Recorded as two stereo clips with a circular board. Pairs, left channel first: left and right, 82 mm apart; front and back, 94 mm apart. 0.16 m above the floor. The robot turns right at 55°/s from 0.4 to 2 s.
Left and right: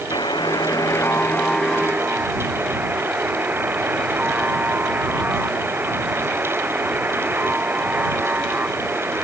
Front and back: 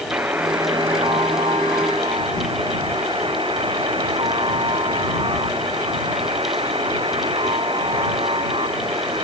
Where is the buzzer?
115° left; by 9.2 s 160° right.